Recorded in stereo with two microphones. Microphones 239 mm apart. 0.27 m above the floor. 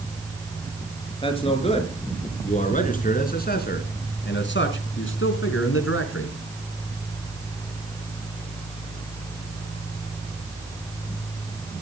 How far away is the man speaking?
About 5 m.